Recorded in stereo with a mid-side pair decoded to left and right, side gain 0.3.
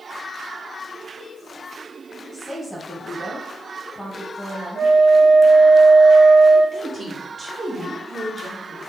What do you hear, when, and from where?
2.3 s a woman speaking: 10° right, 2 m
4.8 s a flute: 45° right, 0.8 m
6.7 s a woman speaking: 40° right, 1.6 m